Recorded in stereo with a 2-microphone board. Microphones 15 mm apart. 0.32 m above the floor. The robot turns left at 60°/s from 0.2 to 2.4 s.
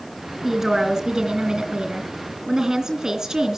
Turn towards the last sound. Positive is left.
turn(degrees=-130)